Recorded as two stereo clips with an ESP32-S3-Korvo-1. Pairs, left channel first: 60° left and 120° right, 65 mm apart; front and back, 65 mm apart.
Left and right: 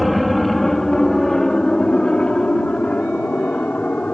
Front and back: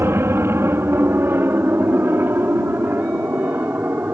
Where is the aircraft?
150° left; by 4.2 s 125° left.